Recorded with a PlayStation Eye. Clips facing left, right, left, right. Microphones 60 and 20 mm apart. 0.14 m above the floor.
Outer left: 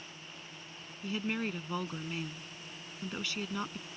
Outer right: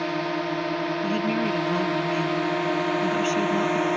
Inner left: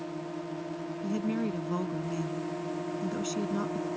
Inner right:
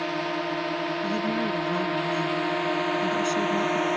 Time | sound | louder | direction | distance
0.0 | a drone | outer right 24 dB, inner right 10 dB | 80° right | ?
1.0 | a woman speaking | outer right 7 dB, inner right 1 dB | 15° right (ahead or behind) | ?